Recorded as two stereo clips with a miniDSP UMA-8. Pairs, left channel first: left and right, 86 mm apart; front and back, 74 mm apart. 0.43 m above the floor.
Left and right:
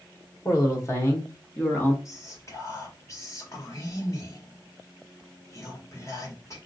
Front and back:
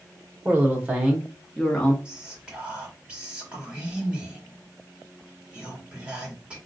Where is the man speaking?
130° left, 1.6 m; by 1.9 s 45° left, 1.2 m.